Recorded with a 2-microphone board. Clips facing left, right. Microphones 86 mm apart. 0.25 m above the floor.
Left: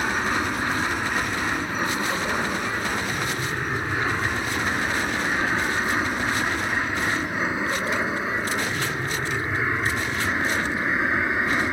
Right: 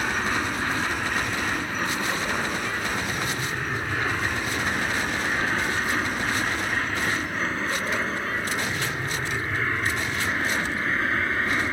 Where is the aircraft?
10° left (ahead or behind); by 11.7 s 15° left (ahead or behind).